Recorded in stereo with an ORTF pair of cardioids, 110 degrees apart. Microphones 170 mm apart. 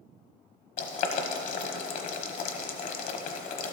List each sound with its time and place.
0.8 s boiling: 55° left, 1.1 m